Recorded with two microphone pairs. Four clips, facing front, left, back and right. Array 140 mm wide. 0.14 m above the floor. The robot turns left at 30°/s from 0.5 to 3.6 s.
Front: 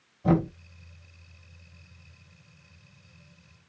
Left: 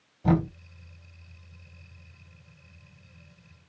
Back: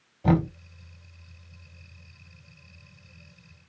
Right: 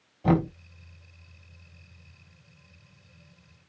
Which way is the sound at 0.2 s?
145° right.